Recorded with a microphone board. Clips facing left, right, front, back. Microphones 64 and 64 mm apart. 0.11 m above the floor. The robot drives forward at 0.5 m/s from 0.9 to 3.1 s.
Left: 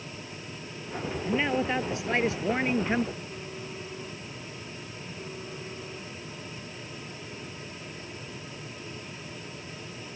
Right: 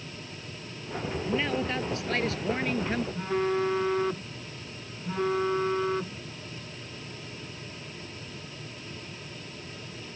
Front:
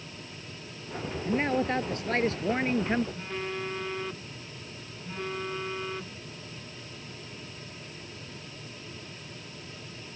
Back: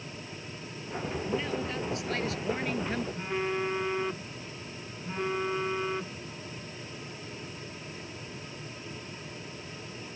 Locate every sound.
1.2 s a man speaking: 20° left; by 3.0 s 40° left
3.1 s a phone buzzing: 105° right